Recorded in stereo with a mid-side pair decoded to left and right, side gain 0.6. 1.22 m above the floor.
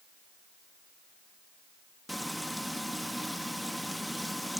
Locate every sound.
2.1 s frying: straight ahead, 1.2 m